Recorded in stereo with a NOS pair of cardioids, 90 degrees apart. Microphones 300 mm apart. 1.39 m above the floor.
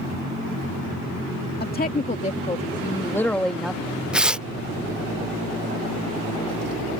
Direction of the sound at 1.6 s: 30° left.